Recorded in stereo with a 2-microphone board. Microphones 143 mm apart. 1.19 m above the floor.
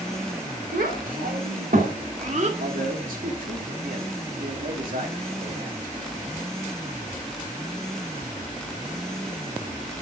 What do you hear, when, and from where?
0.7 s a child speaking: 85° right, 3 m; by 2.5 s 50° right (ahead or behind), 1.9 m
2.6 s a man speaking: 80° right, 2.5 m